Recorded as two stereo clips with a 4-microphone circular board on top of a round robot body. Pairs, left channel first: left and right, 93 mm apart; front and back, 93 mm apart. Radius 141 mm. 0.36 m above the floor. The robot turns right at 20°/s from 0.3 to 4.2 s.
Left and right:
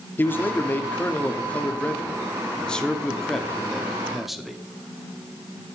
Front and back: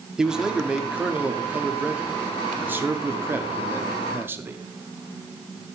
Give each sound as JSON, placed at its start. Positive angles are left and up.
{"t": 0.2, "sound": "a man speaking", "azimuth_deg": 105, "distance_m": 0.9}